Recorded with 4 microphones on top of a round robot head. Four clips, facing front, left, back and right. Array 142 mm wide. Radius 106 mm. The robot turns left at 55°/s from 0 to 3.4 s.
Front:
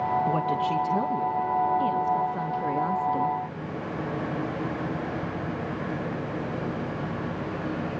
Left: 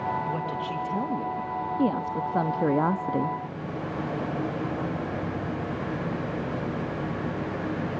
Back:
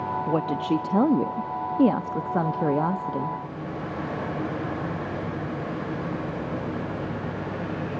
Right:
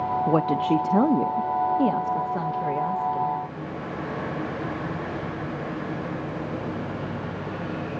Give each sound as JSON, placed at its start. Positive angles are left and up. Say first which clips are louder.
{"t": 0.3, "sound": "a woman speaking", "louder": "right 9 dB, back 1 dB", "azimuth_deg": -90, "distance_m": 1.0}